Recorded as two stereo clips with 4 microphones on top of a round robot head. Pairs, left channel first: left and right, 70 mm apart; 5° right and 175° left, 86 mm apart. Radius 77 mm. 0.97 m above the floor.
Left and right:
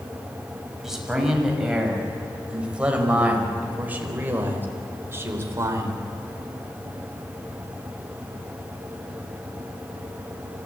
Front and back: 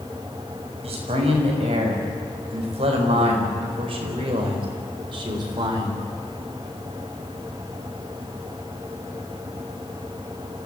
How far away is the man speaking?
About 6.5 m.